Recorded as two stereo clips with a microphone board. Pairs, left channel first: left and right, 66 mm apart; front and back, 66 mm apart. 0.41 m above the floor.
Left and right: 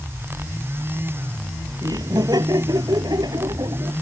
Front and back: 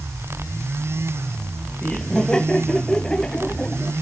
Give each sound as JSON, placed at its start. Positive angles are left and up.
{"t": 1.8, "sound": "laughter", "azimuth_deg": -80}